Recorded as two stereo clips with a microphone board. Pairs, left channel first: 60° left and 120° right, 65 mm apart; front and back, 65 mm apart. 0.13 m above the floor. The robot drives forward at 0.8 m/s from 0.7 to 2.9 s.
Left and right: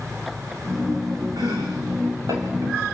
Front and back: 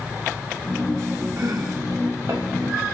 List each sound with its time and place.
1.4 s chopping: 135° right, 3.5 m; by 2.8 s 145° right, 4.5 m